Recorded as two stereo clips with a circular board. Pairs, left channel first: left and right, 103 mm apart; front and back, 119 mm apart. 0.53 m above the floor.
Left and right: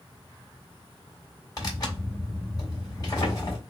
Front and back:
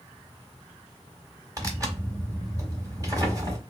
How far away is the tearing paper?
About 1.8 m.